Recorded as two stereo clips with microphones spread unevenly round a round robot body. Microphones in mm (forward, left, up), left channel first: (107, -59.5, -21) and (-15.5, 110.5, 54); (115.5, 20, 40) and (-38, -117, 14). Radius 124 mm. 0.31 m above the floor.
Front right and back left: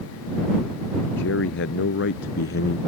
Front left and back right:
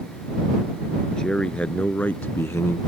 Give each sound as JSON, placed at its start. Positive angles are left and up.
{"t": 1.2, "sound": "a man speaking", "azimuth_deg": -45}